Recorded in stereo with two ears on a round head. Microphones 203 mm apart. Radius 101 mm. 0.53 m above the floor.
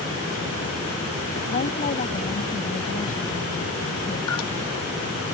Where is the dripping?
85° left.